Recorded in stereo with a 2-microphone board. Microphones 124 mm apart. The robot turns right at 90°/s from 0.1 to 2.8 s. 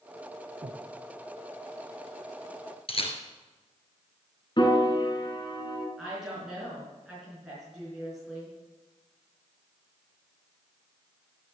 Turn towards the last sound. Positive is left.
turn(degrees=-5)  # may be behind; listen again after turning